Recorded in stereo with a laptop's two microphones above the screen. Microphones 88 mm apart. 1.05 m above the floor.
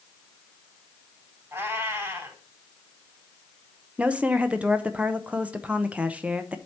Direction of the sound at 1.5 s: 25° right (ahead or behind).